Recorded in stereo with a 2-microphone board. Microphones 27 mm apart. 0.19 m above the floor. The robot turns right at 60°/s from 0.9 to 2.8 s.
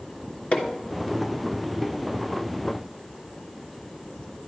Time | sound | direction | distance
0.5 | hammering | 50° left (ahead or behind) | 2.5 m